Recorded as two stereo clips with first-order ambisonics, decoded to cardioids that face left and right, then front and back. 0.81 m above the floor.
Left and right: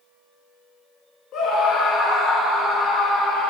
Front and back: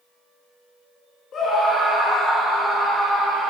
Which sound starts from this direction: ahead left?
A scream, at 1.3 s.